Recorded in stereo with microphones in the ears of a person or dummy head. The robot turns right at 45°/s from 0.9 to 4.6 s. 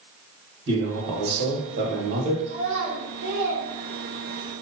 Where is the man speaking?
105° right, 1.7 m; by 2.4 s 40° right, 1.7 m.